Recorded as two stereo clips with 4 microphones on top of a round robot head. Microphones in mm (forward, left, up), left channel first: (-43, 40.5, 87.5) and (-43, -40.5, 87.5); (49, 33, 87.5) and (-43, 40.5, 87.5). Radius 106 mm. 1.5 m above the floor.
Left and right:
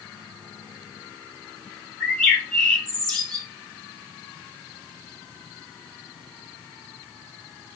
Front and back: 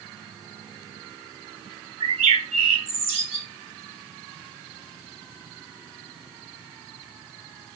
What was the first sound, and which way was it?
A bird, 175° left.